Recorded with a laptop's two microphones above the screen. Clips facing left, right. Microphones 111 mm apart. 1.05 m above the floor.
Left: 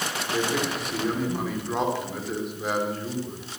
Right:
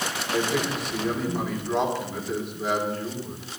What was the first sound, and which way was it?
A man speaking, centre (ahead or behind).